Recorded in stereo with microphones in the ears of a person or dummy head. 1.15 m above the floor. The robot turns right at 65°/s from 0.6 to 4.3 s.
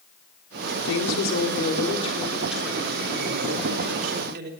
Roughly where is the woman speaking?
Left.